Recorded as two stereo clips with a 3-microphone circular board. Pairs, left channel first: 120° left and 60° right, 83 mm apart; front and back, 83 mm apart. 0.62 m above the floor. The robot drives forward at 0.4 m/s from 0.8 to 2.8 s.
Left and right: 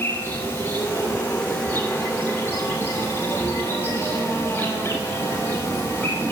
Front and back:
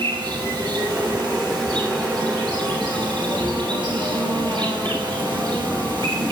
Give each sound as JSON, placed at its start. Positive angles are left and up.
{"t": 0.0, "sound": "an insect", "azimuth_deg": -175, "distance_m": 6.0}